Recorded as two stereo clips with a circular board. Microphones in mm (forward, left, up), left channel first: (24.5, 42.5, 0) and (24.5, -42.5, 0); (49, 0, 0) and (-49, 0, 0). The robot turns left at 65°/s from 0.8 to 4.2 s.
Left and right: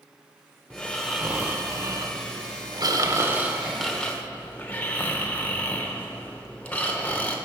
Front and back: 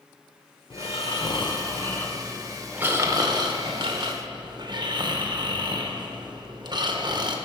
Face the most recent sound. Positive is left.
turn(degrees=160)